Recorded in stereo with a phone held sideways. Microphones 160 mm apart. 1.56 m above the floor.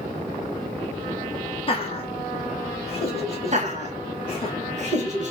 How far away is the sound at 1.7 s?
About 0.9 m.